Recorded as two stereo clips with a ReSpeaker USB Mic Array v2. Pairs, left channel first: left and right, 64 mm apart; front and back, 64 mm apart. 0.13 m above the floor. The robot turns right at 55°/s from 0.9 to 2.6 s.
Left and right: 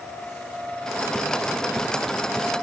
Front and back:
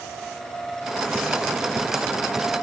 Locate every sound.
Only background noise.